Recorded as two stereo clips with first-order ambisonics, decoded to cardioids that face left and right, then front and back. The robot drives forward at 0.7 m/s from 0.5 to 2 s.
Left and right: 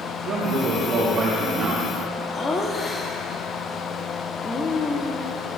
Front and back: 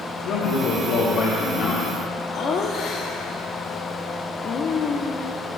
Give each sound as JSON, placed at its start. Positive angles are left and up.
{"t": 0.2, "sound": "a man speaking", "azimuth_deg": -25, "distance_m": 2.5}
{"t": 2.3, "sound": "laughter", "azimuth_deg": 25, "distance_m": 1.0}